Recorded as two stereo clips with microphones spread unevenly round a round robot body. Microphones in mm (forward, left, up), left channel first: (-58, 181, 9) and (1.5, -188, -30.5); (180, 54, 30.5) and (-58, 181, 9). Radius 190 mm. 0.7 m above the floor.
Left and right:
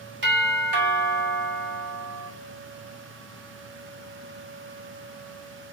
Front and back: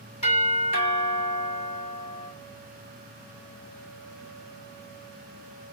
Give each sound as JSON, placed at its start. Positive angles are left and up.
{"t": 0.2, "sound": "a doorbell", "azimuth_deg": -105, "distance_m": 2.5}